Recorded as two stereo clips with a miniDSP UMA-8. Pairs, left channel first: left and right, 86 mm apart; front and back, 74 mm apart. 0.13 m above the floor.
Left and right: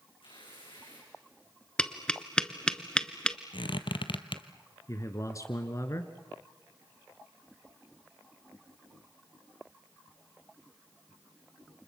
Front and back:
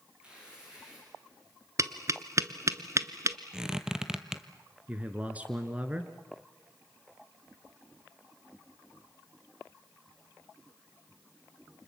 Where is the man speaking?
120° left, 1.4 m.